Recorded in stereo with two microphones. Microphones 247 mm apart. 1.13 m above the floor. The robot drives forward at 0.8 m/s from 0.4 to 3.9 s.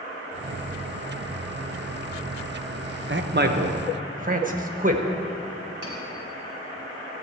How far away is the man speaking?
About 1.0 m.